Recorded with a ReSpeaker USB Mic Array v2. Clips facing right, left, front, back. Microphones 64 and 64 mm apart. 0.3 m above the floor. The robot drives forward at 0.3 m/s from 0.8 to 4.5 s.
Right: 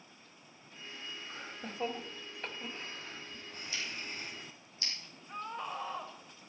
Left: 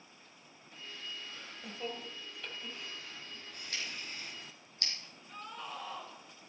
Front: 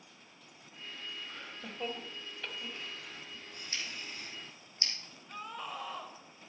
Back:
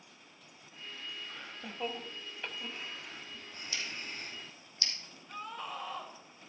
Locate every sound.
1.3 s laughter: 80° right, 1.1 m; by 4.4 s 145° right, 1.4 m
3.7 s scissors: 55° left, 3.5 m
5.3 s a scream: 85° right, 1.5 m